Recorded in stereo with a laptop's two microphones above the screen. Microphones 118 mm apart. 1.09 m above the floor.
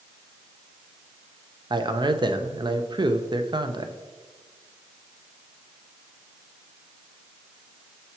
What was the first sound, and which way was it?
A man speaking, 40° right (ahead or behind).